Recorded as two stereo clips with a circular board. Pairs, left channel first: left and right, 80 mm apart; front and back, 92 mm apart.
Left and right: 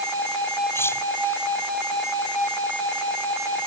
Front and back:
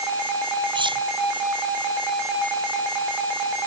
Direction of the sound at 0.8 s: 150° left.